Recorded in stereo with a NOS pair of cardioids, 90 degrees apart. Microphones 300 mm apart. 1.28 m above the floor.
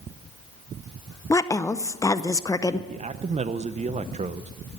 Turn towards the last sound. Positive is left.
turn(degrees=-25)